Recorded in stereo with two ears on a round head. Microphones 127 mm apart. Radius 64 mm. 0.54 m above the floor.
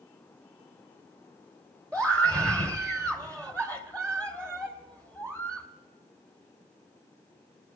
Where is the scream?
20° right (ahead or behind), 1.6 m.